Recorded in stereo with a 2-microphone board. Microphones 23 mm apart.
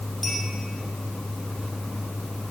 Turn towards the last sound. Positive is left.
turn(degrees=5)  # may be behind; listen again after turning